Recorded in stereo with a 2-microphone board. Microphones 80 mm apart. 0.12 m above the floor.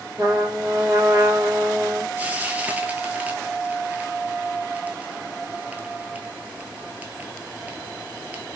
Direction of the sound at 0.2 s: 40° right (ahead or behind).